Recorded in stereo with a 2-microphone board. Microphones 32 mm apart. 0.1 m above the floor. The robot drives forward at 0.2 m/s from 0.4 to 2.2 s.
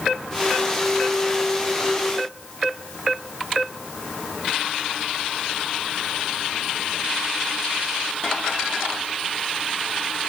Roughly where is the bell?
No bell in this recording.